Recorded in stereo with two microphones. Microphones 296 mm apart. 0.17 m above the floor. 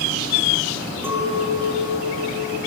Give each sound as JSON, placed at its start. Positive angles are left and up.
{"t": 1.0, "sound": "a clink", "side_deg": -10, "distance_m": 8.0}